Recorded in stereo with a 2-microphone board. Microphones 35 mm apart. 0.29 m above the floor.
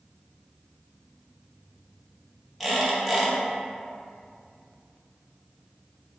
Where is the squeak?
Centre (ahead or behind), 0.6 m.